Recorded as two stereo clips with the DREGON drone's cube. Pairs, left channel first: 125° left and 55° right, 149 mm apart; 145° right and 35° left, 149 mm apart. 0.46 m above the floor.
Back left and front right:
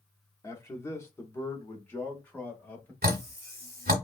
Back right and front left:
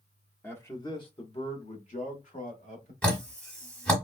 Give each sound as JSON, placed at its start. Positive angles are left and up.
{"t": 0.4, "sound": "a man speaking", "azimuth_deg": 155, "distance_m": 0.8}
{"t": 3.0, "sound": "dripping", "azimuth_deg": -65, "distance_m": 1.0}